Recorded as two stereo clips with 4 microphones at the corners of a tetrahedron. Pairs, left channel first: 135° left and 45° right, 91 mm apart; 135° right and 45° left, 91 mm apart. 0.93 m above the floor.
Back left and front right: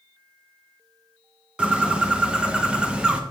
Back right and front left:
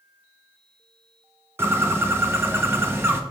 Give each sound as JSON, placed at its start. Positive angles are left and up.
{"t": 1.6, "sound": "a bird", "azimuth_deg": 20, "distance_m": 0.9}